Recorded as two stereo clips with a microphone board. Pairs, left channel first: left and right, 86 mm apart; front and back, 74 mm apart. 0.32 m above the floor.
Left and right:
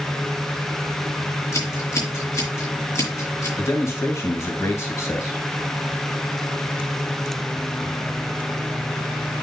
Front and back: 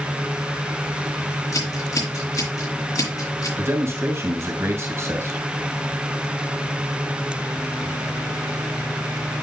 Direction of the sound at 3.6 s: 140° left.